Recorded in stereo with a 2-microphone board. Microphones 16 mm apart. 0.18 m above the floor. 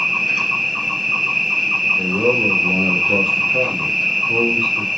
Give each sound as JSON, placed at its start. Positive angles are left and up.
{"t": 0.0, "sound": "an insect", "side_deg": -35, "distance_m": 2.5}
{"t": 2.0, "sound": "a man speaking", "side_deg": -65, "distance_m": 3.5}